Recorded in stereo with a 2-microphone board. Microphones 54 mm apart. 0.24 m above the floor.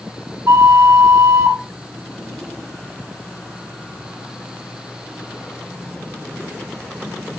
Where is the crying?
No crying in this recording.